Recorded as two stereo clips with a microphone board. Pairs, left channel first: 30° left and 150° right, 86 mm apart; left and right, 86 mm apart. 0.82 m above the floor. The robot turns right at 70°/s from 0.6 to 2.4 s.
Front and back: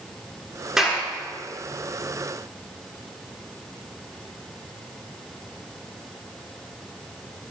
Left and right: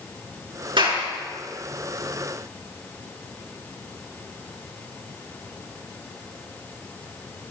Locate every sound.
0.8 s a clap: 65° right, 8 m; by 1.0 s 45° right, 8 m